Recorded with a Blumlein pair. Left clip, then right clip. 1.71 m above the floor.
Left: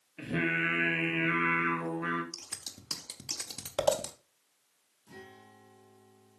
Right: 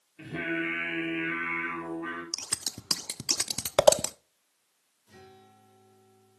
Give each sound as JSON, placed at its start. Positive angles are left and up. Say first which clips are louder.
{"t": 0.2, "sound": "singing", "louder": "left 2 dB", "azimuth_deg": 50, "distance_m": 2.5}
{"t": 2.3, "sound": "scissors", "louder": "right 9 dB", "azimuth_deg": -65, "distance_m": 0.5}
{"t": 5.1, "sound": "a guitar", "louder": "left 2 dB", "azimuth_deg": 65, "distance_m": 4.5}